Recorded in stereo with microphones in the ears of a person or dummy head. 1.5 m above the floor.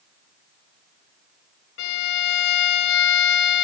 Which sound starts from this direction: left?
A violin, at 1.8 s.